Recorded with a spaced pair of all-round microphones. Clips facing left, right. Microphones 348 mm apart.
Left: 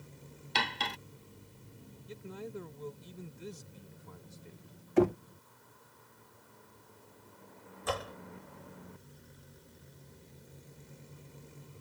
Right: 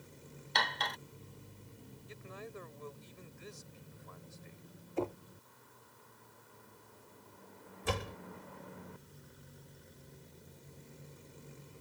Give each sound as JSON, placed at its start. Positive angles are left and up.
{"t": 0.6, "sound": "cutlery clinking", "side_deg": 40}
{"t": 2.1, "sound": "a man speaking", "side_deg": 45}
{"t": 5.0, "sound": "knocking", "side_deg": 85}
{"t": 7.8, "sound": "a door slam", "side_deg": -35}